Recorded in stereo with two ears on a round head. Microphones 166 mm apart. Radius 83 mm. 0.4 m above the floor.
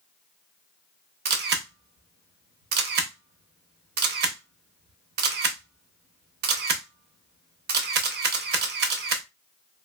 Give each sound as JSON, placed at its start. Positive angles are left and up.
{"t": 1.2, "sound": "a camera shutter", "side_deg": -60, "distance_m": 0.6}